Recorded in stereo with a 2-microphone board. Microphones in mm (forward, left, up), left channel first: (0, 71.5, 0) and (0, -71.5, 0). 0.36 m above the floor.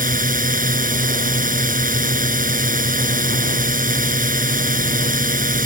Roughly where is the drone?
Right.